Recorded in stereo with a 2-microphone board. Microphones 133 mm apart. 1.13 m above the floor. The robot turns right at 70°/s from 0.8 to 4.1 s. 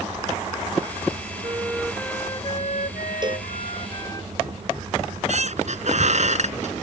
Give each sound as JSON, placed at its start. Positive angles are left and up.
{"t": 1.4, "sound": "a flute", "azimuth_deg": -35}
{"t": 3.2, "sound": "a cowbell", "side_deg": -35}
{"t": 5.0, "sound": "a squeak", "side_deg": -60}